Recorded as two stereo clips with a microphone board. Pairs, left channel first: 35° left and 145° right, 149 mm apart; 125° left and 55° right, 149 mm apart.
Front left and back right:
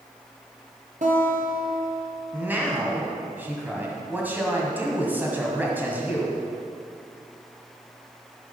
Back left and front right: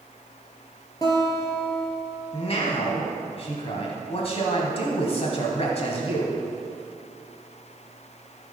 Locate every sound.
1.0 s a guitar: 170° right, 2.5 m
2.3 s a man speaking: 140° left, 1.8 m